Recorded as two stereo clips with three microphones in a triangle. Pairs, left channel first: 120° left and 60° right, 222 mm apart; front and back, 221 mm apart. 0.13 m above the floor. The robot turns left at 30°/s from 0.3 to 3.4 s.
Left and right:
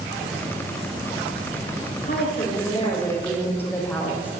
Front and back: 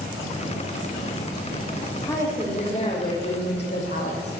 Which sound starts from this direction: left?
A woman speaking, at 2.0 s.